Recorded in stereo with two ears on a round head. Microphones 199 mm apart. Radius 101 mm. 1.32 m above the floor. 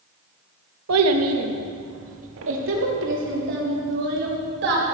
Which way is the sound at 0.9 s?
85° right.